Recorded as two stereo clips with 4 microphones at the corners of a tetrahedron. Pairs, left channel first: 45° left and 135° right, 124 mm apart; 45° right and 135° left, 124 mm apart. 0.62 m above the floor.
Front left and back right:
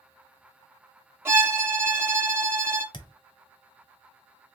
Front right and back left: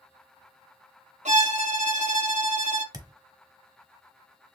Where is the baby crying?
I don't hear a baby crying.